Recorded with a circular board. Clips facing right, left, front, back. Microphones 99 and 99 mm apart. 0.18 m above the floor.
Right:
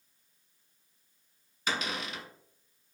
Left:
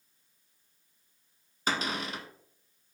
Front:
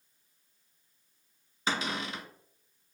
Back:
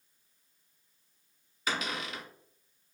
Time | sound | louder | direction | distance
1.7 | a cupboard door | left 2 dB, front 2 dB | 50° left | 0.9 m